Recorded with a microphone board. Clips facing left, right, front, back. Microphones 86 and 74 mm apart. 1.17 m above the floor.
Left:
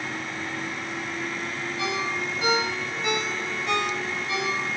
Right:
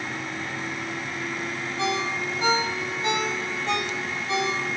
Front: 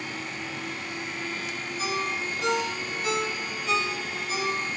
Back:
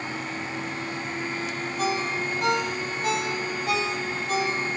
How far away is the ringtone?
About 3 m.